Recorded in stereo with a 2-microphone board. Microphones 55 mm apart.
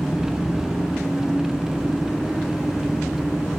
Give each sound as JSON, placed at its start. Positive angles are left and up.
{"t": 0.0, "sound": "an engine running", "side_deg": -10, "distance_m": 1.4}